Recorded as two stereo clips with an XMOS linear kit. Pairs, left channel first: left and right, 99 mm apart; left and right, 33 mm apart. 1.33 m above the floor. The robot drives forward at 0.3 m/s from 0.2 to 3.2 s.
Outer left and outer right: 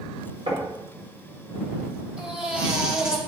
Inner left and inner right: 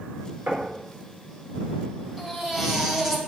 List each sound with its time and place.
0.5 s knocking: 75° right (ahead or behind), 4.5 m
2.2 s a baby crying: 10° right (ahead or behind), 3 m